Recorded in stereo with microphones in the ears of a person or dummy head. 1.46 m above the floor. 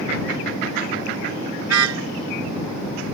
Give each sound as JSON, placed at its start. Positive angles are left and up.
{"t": 1.6, "sound": "a car horn", "side_deg": -80}